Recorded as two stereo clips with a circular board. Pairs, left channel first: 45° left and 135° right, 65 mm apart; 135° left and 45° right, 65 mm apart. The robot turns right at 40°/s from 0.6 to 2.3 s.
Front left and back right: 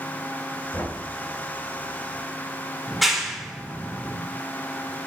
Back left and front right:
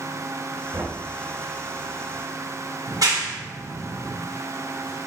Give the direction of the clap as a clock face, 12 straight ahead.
2 o'clock.